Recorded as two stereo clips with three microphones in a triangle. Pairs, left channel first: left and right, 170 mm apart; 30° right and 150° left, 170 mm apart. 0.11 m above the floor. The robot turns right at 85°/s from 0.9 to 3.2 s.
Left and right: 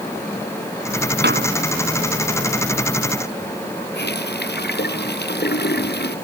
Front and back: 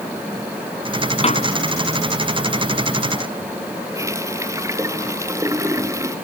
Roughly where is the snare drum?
Right.